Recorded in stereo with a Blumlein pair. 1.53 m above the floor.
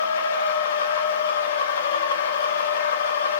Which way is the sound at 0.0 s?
60° left.